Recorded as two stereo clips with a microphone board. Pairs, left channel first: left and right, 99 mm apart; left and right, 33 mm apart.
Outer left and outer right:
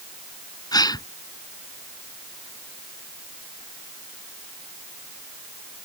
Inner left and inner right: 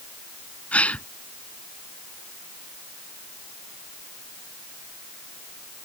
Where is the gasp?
40° left (ahead or behind).